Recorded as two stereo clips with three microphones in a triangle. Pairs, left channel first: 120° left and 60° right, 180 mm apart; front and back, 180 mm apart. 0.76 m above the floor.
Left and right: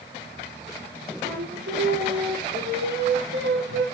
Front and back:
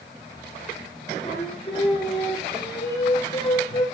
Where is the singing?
60° right, 2.5 m.